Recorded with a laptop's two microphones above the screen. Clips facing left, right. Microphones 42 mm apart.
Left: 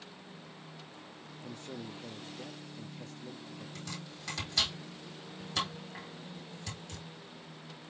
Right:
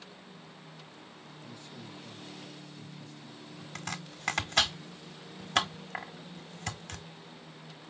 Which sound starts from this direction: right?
Chopping, at 3.8 s.